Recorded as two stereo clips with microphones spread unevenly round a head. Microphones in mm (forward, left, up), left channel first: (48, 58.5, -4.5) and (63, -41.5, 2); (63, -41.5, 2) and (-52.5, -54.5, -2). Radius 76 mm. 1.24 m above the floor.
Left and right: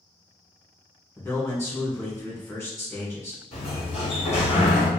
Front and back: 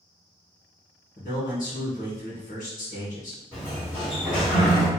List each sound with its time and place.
1.2 s a man speaking: 35° left, 1.8 m
3.5 s a sliding door: 75° left, 1.8 m